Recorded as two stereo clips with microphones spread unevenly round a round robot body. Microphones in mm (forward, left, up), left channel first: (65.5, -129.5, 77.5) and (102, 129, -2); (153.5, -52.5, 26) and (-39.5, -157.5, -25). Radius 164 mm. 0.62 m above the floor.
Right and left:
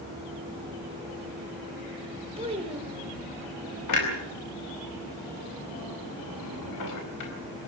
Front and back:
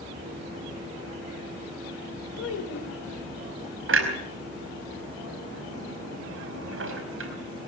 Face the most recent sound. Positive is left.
turn(degrees=-135)